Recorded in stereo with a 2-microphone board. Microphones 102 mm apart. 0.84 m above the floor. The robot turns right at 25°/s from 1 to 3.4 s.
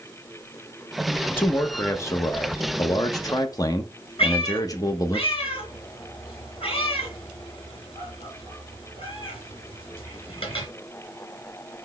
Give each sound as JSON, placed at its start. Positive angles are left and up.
{"t": 1.4, "sound": "a man speaking", "azimuth_deg": 35, "distance_m": 0.7}
{"t": 4.2, "sound": "a cat meowing", "side_deg": 60, "distance_m": 2.5}